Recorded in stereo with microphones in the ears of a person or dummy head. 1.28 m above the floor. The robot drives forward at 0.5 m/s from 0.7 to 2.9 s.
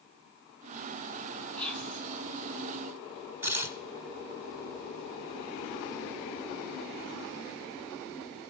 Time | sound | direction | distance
1.6 | whispering | 15° left (ahead or behind) | 1.5 m
3.4 | tearing paper | 15° right (ahead or behind) | 0.6 m